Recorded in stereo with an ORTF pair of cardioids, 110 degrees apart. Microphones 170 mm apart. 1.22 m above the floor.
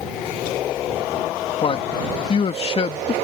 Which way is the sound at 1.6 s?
35° left.